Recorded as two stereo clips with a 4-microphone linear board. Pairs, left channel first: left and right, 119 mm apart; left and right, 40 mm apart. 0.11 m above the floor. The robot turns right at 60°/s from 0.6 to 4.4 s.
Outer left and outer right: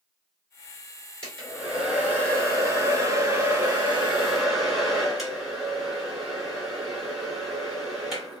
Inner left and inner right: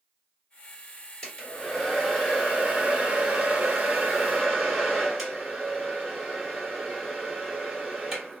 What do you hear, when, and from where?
1.2 s a hair dryer: 10° left (ahead or behind), 1.6 m; by 8.4 s 5° right (ahead or behind), 1.6 m